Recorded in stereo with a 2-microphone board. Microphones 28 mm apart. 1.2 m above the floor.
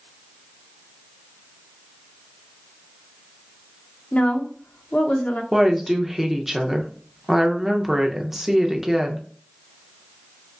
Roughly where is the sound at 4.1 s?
Left.